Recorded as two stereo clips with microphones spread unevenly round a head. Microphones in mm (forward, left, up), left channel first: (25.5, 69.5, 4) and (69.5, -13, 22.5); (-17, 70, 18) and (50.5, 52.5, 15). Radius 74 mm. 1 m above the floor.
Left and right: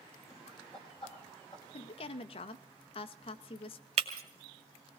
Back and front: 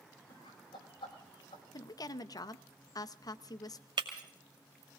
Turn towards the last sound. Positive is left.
turn(degrees=-75)